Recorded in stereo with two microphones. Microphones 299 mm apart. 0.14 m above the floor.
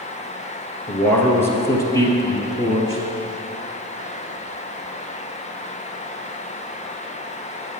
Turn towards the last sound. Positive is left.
turn(degrees=10)  # may be behind; listen again after turning